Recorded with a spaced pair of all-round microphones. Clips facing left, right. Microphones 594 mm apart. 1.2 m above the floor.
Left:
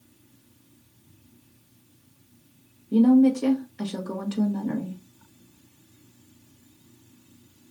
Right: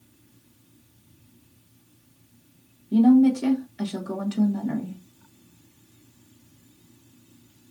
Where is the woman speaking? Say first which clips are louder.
Right 1 dB; 10° right (ahead or behind), 0.9 m.